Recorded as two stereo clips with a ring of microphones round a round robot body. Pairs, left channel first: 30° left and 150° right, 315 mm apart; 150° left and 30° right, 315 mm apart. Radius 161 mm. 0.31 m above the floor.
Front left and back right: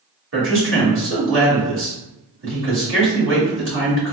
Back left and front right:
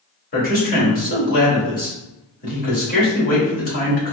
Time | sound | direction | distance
0.3 | a man speaking | 165° right | 1.9 m